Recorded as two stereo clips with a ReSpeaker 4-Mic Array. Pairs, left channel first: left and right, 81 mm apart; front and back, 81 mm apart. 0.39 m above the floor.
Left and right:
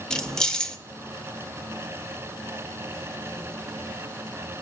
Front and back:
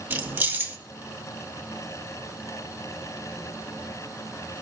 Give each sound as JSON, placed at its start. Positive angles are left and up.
{"t": 0.1, "sound": "keys jangling", "azimuth_deg": 155, "distance_m": 0.6}